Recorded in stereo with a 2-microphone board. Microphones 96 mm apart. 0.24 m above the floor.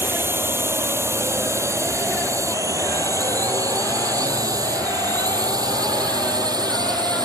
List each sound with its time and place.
0.0 s a drone: 25° right (ahead or behind); by 7.3 s 45° right (ahead or behind)